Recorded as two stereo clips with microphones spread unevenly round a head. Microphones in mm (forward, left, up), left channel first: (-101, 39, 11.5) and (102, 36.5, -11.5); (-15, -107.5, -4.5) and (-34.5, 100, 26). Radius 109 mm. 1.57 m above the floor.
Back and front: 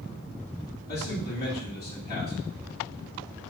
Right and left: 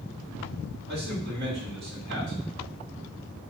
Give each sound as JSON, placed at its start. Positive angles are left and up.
{"t": 0.9, "sound": "a man speaking", "azimuth_deg": 135, "distance_m": 3.0}